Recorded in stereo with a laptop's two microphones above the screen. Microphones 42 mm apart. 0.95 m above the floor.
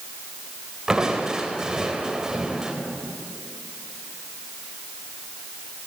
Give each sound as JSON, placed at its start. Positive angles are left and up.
{"t": 0.9, "sound": "crushing", "side_deg": -15, "distance_m": 3.5}